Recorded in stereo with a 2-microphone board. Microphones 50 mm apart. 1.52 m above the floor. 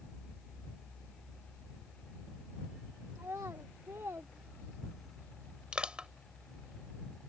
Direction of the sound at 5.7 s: 20° right (ahead or behind).